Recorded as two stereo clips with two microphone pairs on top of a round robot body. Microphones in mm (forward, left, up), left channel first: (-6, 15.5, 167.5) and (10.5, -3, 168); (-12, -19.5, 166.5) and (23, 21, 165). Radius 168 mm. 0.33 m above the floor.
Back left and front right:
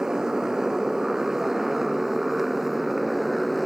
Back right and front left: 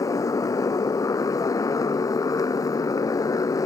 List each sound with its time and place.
0.0 s a motorcycle: 115° right; by 3.7 s 135° right